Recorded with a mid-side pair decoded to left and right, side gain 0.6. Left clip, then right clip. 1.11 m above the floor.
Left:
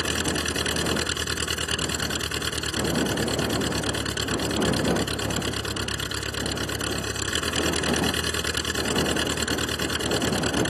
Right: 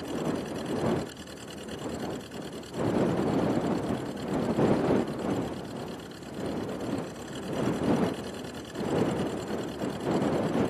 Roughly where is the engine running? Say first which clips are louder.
Left 7 dB; left.